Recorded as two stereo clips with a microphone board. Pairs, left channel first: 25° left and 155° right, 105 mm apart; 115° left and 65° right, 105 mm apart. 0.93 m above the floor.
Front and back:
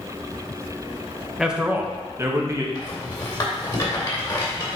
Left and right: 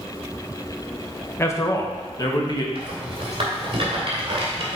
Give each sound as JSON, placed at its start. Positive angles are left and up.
{"t": 1.4, "sound": "a man speaking", "azimuth_deg": 125, "distance_m": 0.9}
{"t": 2.8, "sound": "a rattle", "azimuth_deg": -30, "distance_m": 2.5}